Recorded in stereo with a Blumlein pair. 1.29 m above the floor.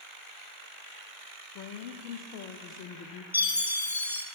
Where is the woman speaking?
40° left, 0.9 m.